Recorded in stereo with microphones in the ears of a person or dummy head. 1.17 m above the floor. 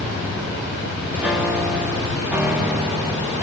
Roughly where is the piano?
Centre.